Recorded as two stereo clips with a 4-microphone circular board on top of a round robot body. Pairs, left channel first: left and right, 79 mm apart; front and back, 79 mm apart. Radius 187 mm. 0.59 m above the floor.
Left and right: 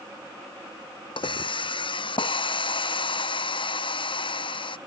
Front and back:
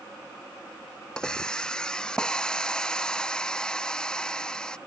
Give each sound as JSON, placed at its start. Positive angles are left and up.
{"t": 1.2, "sound": "a hiss", "azimuth_deg": 80}